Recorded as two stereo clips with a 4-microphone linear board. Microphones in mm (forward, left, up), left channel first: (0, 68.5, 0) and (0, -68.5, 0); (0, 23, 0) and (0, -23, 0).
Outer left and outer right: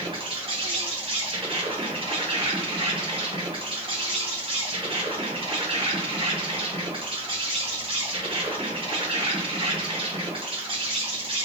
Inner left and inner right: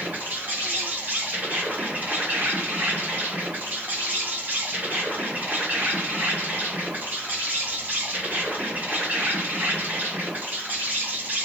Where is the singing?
I don't hear singing.